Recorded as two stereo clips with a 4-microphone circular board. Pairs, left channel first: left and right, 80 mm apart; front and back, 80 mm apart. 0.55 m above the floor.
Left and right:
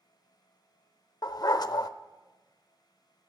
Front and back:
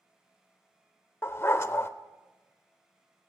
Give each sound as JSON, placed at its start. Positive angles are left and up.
{"t": 1.2, "sound": "a dog barking", "azimuth_deg": 55, "distance_m": 0.6}